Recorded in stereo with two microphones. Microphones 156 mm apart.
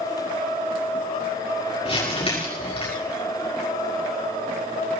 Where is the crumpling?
35° left (ahead or behind), 6.5 m.